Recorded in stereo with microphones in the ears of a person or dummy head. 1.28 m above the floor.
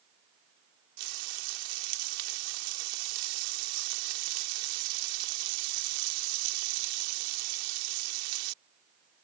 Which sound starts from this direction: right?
Frying, at 1.0 s.